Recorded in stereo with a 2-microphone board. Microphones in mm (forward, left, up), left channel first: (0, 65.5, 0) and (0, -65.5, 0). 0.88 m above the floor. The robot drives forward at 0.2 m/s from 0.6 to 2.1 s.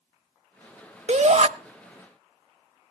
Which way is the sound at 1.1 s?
55° right (ahead or behind).